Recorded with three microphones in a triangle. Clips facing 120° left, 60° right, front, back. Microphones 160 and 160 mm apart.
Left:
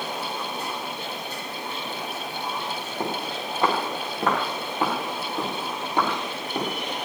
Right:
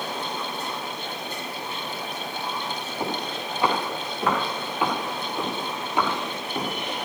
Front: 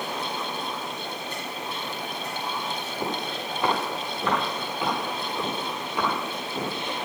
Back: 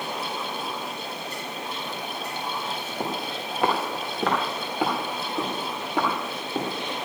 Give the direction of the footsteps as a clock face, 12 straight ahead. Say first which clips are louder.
Even, even; 7 o'clock.